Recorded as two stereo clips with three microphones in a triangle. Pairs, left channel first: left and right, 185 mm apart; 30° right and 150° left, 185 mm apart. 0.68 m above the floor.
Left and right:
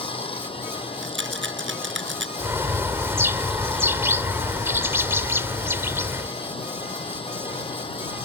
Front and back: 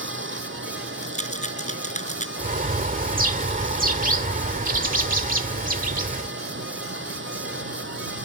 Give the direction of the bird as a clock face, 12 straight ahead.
6 o'clock.